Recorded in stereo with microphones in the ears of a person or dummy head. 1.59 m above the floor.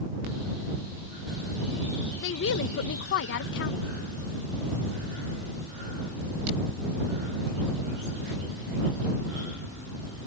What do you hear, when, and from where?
2.2 s a woman speaking: 60° left (ahead or behind)